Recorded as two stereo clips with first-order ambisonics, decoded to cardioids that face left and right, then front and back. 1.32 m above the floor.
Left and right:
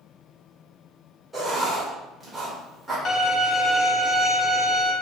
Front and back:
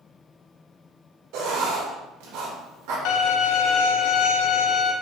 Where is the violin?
25° left, 1.0 m.